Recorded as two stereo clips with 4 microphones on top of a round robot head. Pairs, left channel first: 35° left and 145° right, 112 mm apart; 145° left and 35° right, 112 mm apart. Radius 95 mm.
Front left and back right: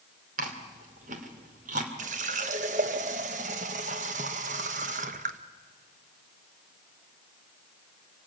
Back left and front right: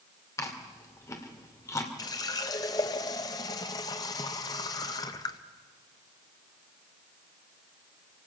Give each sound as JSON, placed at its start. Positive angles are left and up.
{"t": 0.4, "sound": "chewing", "azimuth_deg": -150, "distance_m": 2.0}
{"t": 2.0, "sound": "a running tap", "azimuth_deg": -160, "distance_m": 0.9}